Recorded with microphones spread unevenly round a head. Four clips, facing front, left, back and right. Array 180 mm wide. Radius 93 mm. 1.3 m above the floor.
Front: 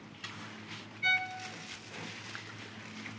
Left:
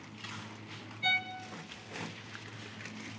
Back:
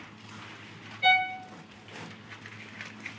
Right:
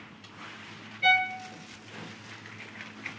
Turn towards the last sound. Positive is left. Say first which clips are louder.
# right 10 dB, back 10 dB
turn(degrees=-155)